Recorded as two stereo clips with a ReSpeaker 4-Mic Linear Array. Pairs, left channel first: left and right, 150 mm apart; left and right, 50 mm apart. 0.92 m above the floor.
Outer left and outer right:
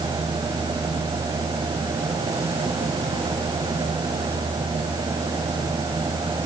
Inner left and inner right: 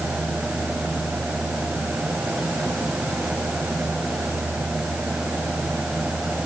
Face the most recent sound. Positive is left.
No sound to turn to.